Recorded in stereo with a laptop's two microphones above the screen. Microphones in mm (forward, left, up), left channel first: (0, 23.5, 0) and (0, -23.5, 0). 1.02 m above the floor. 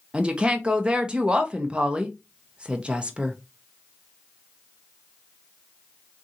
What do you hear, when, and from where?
0.1 s a woman speaking: 20° right (ahead or behind), 0.7 m